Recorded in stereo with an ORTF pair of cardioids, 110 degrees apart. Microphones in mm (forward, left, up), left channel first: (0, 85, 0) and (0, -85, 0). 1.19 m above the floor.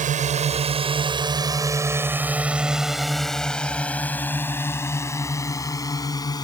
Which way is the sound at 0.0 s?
50° right.